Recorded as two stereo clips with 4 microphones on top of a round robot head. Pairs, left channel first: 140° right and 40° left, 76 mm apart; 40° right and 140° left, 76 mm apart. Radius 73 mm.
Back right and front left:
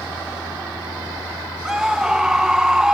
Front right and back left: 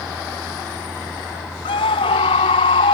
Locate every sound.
1.6 s a scream: 40° right